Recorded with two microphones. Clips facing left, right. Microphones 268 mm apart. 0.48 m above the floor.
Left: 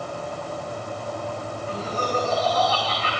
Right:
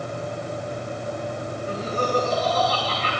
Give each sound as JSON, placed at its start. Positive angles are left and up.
{"t": 1.7, "sound": "laughter", "side_deg": -40, "distance_m": 3.0}